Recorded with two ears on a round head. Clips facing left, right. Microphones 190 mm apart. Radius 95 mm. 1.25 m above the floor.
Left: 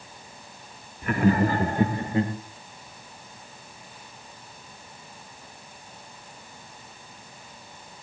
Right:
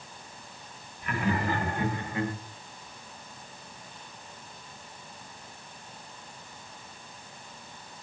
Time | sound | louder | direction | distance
1.0 | laughter | left 8 dB | 40° left (ahead or behind) | 1.8 m